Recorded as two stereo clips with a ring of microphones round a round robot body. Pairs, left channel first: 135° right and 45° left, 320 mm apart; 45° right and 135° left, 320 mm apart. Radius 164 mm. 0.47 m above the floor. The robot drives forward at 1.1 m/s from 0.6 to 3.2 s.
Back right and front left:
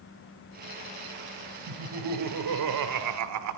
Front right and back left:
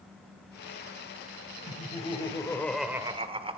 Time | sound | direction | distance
1.7 | laughter | 25° left | 2.5 m